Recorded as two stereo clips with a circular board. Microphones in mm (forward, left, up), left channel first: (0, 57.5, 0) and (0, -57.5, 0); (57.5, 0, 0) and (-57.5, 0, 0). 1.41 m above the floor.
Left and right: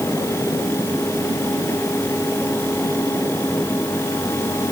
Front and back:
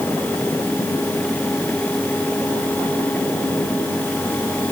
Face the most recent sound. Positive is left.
No sound to turn to.